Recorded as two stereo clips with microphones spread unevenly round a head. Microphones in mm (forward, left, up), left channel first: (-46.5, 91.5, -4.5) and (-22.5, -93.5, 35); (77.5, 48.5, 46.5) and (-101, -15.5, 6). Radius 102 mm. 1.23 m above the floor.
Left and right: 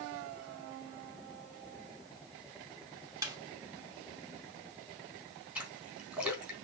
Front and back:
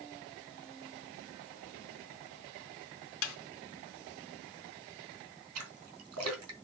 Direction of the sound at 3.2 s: 5° right.